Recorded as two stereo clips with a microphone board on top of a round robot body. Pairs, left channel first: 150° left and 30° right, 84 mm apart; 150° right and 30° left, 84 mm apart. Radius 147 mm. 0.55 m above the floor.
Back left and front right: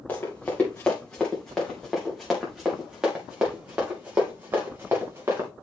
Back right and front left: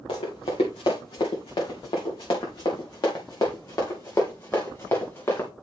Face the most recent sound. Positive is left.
turn(degrees=-90)